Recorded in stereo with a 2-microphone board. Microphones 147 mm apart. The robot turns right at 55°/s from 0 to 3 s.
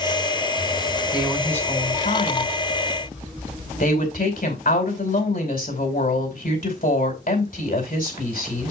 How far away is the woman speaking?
About 4.5 m.